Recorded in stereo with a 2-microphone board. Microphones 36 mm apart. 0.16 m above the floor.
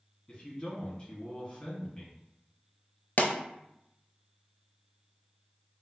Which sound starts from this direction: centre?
A man speaking, at 0.3 s.